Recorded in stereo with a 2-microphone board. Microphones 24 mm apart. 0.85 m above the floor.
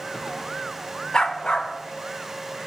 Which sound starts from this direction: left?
A dog barking, at 1.1 s.